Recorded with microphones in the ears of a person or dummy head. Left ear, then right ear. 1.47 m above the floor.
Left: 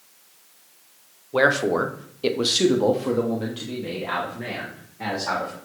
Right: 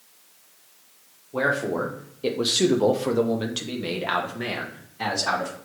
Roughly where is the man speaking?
Left.